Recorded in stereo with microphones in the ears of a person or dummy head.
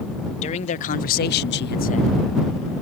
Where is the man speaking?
35° left (ahead or behind); by 2.1 s 25° left (ahead or behind).